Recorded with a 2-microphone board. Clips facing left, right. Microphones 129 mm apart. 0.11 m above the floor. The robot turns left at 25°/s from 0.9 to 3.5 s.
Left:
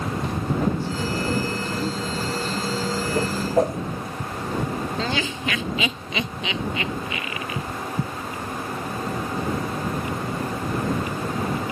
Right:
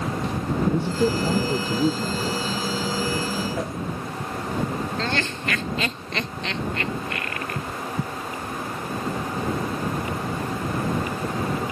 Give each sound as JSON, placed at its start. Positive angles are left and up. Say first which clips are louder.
{"t": 0.7, "sound": "a man speaking", "louder": "right 4 dB", "azimuth_deg": -105}
{"t": 3.1, "sound": "a whoosh", "louder": "left 6 dB", "side_deg": 50}
{"t": 5.0, "sound": "laughter", "louder": "left 1 dB", "side_deg": 5}